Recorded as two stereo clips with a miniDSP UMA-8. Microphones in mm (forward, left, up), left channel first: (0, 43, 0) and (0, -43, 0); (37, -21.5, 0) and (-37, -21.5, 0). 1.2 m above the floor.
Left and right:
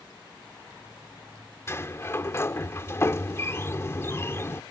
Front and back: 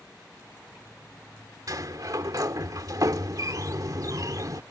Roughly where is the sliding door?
Behind left.